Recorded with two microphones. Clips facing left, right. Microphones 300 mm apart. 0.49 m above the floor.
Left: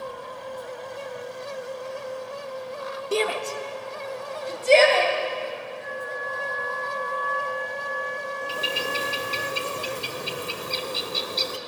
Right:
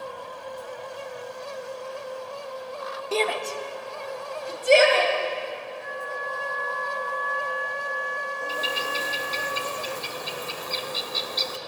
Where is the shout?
20° left (ahead or behind), 0.9 m; by 5.1 s 15° right (ahead or behind), 3 m.